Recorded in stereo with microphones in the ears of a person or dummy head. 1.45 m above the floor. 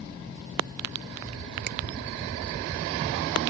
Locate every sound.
1.7 s a finger snap: 50° right (ahead or behind)